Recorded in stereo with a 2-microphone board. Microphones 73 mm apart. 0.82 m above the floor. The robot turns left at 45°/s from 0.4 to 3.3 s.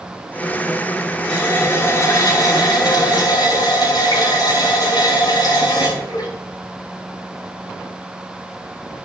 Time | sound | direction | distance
1.3 | a running tap | 170° left | 6 m